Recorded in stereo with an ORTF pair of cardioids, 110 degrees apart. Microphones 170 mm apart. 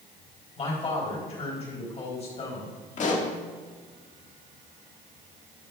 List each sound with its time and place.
0.6 s a man speaking: 40° left, 4.5 m
3.0 s a pop: 45° left, 1.8 m